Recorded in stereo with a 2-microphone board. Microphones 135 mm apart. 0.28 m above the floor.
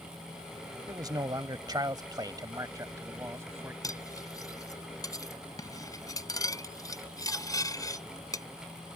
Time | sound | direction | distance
0.9 | a man speaking | 30° right (ahead or behind) | ?
3.8 | cutlery clinking | 25° left (ahead or behind) | ?